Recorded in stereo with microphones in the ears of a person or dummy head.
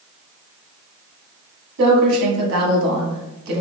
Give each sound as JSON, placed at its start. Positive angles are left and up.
{"t": 1.8, "sound": "a woman speaking", "side_deg": -70, "distance_m": 0.9}